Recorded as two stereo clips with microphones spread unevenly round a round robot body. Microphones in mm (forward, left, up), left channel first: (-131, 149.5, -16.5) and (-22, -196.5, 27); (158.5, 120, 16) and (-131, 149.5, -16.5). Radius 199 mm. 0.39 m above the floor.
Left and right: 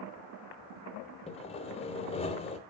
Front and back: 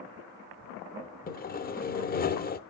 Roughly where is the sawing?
Ahead left.